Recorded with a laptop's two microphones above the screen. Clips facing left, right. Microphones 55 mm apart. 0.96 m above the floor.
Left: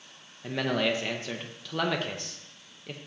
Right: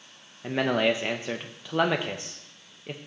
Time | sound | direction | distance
0.4 | a man speaking | 20° right (ahead or behind) | 0.5 m